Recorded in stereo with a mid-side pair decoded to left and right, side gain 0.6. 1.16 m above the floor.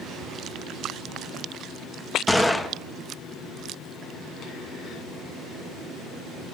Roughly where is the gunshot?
Ahead.